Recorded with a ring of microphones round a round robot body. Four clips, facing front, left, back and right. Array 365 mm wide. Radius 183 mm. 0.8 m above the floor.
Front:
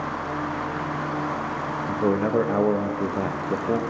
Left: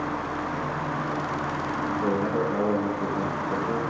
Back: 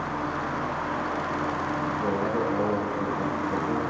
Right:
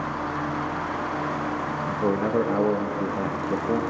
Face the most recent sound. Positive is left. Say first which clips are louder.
# right 2 dB, front 7 dB
turn(degrees=-25)